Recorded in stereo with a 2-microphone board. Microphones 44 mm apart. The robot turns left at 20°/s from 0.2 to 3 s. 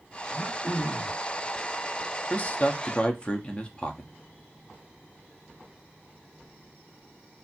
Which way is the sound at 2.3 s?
35° left (ahead or behind).